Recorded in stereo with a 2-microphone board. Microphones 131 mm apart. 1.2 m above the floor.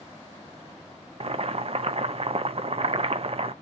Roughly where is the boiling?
Right.